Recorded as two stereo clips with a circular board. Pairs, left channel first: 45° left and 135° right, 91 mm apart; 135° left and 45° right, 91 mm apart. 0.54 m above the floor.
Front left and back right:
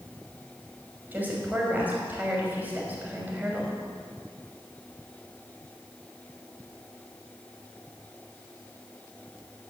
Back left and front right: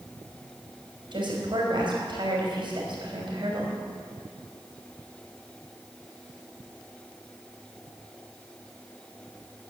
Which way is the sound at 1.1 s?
65° right.